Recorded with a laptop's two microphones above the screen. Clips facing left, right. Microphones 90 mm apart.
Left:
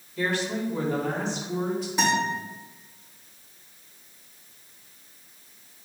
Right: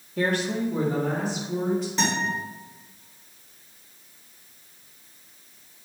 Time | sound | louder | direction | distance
0.2 | a woman speaking | right 2 dB | 60° right (ahead or behind) | 1.5 m
2.0 | a guitar | left 2 dB | 10° left (ahead or behind) | 3 m